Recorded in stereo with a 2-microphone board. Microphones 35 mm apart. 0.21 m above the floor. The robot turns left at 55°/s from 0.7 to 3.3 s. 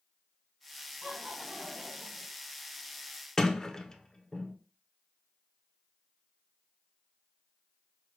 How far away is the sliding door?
About 0.6 m.